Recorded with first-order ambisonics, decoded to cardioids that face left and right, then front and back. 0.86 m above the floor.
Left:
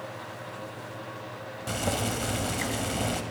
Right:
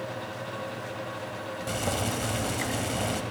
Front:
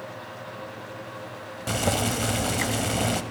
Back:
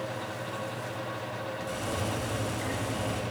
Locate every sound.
1.7 s boiling: 5° left, 0.9 m